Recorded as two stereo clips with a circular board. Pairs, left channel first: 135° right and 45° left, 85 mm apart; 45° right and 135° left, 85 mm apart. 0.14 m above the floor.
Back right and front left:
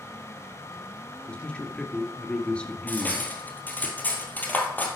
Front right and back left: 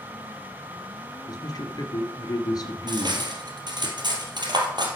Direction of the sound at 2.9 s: 160° left.